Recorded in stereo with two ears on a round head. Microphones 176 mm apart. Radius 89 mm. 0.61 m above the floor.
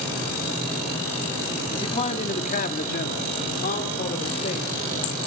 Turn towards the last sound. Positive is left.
turn(degrees=30)  # may be behind; listen again after turning